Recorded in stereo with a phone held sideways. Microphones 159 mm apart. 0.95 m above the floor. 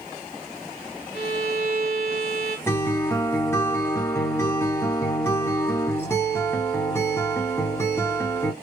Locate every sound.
1.1 s a violin: 60° right (ahead or behind), 1.8 m
2.7 s a guitar: 15° left (ahead or behind), 0.7 m